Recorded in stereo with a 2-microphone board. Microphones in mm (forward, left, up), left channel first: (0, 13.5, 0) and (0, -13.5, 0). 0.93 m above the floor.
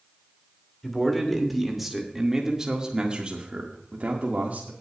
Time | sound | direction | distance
0.8 | a man speaking | 5° left (ahead or behind) | 2.5 m